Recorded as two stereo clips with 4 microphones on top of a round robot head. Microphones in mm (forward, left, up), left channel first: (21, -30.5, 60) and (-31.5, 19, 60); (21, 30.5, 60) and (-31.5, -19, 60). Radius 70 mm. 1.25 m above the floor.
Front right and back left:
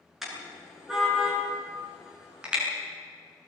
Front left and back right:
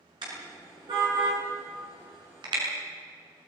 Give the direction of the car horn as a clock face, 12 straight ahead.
5 o'clock.